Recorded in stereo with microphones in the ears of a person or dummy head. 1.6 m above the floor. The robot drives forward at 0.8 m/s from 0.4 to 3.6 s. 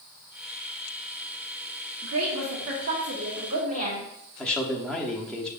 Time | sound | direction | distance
2.0 | a woman speaking | 80° right | 1.1 m
4.4 | a man speaking | 5° left (ahead or behind) | 0.8 m